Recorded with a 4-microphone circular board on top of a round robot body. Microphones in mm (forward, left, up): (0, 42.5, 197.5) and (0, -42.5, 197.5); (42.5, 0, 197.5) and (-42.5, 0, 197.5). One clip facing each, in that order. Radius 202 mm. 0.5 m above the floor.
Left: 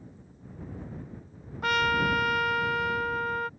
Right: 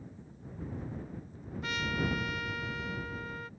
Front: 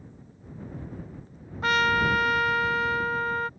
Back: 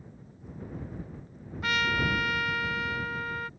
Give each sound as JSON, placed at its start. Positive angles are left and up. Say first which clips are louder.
{"t": 1.6, "sound": "a trumpet", "louder": "left 9 dB, front 6 dB", "azimuth_deg": 55}